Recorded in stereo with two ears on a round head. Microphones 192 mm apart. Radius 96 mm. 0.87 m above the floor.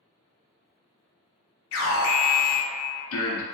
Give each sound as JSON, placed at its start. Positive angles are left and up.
{"t": 1.7, "sound": "an alarm", "side_deg": 70, "distance_m": 0.6}